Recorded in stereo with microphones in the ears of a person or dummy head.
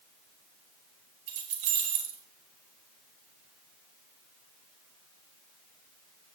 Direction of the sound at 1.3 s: 45° right (ahead or behind).